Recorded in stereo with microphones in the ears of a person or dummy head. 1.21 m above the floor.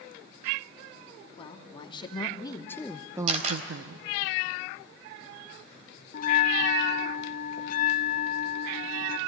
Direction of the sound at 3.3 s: 40° right (ahead or behind).